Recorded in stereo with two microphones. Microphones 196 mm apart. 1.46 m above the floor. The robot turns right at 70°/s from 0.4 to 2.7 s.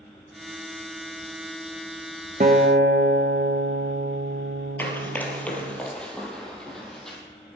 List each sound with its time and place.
2.4 s a guitar: 45° right (ahead or behind), 1.0 m; by 5.8 s 60° right (ahead or behind), 1.0 m
4.8 s running footsteps: 10° left (ahead or behind), 2 m; by 7.2 s centre (ahead or behind), 3.5 m